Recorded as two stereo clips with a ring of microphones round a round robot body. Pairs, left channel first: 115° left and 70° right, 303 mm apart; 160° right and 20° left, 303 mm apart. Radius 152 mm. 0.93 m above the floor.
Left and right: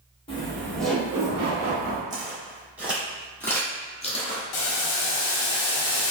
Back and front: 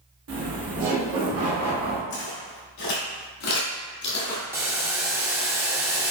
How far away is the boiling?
About 0.7 m.